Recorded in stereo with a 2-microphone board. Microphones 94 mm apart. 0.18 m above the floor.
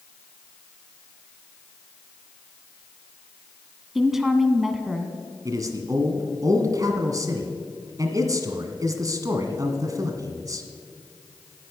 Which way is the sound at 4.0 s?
5° right (ahead or behind).